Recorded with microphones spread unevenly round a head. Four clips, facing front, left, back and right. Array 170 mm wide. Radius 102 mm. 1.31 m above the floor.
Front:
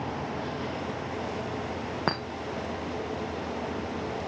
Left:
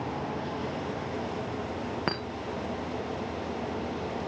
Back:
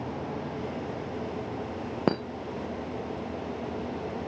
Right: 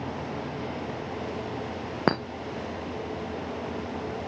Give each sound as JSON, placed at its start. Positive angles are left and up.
{"t": 2.1, "sound": "a clink", "azimuth_deg": -145, "distance_m": 0.5}